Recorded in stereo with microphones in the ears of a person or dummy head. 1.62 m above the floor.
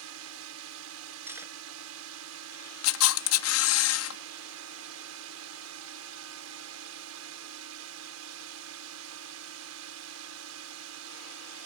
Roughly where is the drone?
Right.